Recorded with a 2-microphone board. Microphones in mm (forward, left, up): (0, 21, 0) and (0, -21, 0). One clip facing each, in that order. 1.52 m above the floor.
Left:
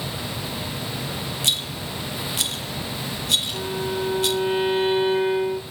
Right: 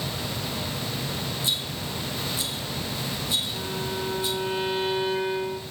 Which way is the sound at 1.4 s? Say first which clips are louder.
Left 3 dB; 65° left (ahead or behind).